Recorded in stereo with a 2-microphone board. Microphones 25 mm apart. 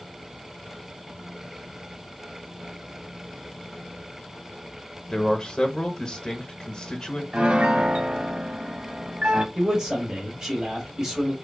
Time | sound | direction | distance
5.1 | a man speaking | 35° left (ahead or behind) | 1.0 m
7.3 | a piano | 45° right (ahead or behind) | 0.6 m
9.6 | a man speaking | 30° right (ahead or behind) | 2 m